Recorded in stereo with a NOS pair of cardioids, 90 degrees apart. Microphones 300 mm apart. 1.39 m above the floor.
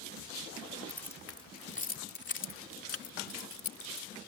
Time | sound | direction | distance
0.9 | keys jangling | 5° left | ?